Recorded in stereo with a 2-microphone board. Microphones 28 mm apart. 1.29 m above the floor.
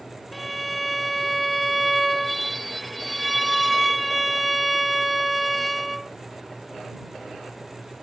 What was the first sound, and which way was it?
A violin, centre (ahead or behind).